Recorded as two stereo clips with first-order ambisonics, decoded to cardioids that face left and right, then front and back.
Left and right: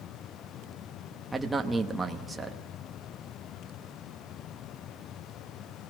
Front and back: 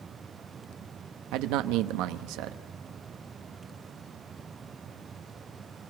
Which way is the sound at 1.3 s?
175° right.